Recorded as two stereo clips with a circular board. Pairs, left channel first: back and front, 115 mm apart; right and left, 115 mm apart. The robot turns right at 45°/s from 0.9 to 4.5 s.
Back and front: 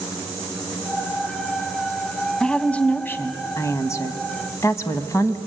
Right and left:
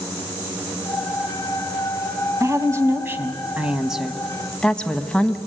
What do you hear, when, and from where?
2.4 s a woman speaking: 100° left, 1.1 m; by 5.4 s 165° right, 1.1 m